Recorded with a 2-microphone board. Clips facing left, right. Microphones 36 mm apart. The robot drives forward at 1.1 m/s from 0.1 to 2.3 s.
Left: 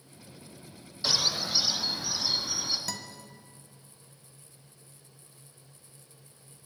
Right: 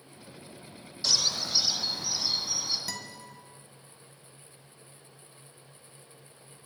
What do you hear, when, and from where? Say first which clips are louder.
1.0 s a bird: even; 20° left (ahead or behind), 0.6 m; by 2.8 s 5° left (ahead or behind), 1.9 m
2.9 s a guitar: even; 10° right (ahead or behind), 1.2 m